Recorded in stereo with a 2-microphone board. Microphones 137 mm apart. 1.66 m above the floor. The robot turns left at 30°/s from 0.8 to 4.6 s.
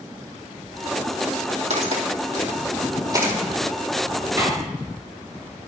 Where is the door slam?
20° right (ahead or behind), 5 m.